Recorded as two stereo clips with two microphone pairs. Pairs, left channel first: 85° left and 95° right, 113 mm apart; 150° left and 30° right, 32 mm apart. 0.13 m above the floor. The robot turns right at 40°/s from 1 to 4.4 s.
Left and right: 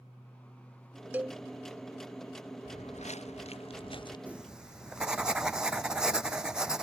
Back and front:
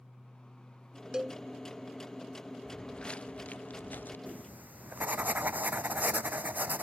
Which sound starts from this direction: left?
Footsteps, at 2.6 s.